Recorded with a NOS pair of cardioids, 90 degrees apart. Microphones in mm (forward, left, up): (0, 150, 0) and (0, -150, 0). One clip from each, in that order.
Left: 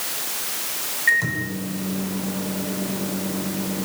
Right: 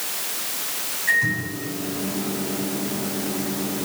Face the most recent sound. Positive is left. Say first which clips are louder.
# left 1 dB
turn(degrees=55)